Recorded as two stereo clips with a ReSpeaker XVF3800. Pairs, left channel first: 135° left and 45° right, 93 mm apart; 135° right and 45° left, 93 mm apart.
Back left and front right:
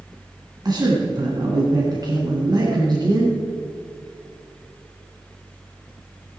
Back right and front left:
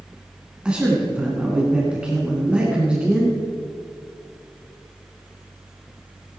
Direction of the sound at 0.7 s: 30° right.